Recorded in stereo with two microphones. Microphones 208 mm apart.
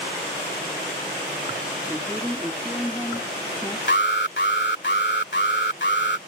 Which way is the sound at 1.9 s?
Centre (ahead or behind).